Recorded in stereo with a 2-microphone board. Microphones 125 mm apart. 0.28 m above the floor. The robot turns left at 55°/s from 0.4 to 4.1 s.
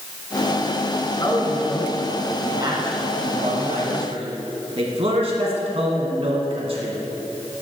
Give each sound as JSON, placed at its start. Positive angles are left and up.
{"t": 1.2, "sound": "a man speaking", "side_deg": 35, "distance_m": 2.5}